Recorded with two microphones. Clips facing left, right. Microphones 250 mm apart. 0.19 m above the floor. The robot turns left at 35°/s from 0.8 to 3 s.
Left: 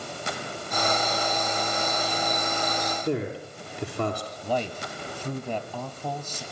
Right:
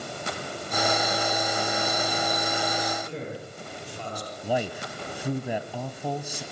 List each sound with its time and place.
3.0 s a man speaking: 70° left (ahead or behind), 3.5 m
4.4 s a man speaking: 10° right (ahead or behind), 1.0 m